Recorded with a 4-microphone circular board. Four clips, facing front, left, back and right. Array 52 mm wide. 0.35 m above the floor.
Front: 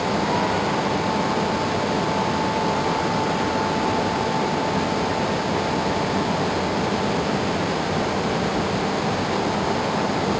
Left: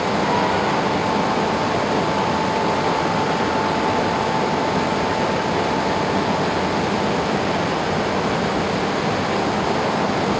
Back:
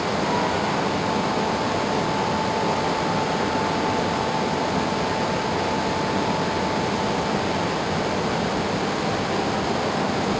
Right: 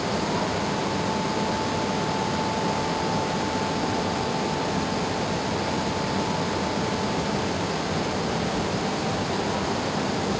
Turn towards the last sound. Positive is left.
No sound to turn to.